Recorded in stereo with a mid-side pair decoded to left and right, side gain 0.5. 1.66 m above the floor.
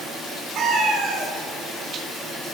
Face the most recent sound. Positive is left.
turn(degrees=-65)